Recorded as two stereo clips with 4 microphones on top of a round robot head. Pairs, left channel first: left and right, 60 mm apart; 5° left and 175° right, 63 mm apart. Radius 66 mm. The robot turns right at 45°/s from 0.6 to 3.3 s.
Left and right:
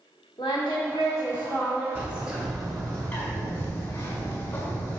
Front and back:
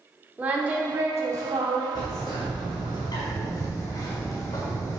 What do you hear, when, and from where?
0.4 s singing: 125° left, 0.8 m; by 1.9 s straight behind, 0.8 m
1.9 s a bird: 20° right, 1.6 m; by 5.0 s 40° left, 1.6 m